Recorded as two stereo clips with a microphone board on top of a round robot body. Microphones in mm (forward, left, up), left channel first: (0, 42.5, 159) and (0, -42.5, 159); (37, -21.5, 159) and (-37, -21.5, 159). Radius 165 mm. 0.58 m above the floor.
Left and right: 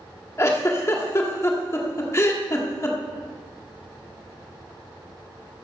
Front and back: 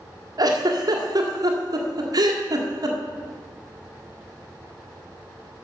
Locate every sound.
0.4 s a giggle: 145° left, 1.7 m